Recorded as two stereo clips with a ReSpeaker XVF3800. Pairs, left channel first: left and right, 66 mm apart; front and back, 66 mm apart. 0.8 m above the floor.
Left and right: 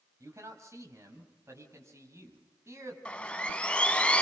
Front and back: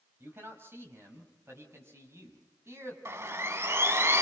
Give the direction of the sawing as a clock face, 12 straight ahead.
7 o'clock.